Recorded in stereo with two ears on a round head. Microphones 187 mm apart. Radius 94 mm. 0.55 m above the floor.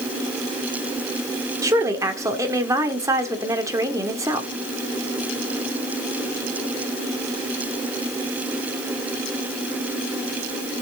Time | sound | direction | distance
1.6 | a woman speaking | 15° right (ahead or behind) | 1.8 m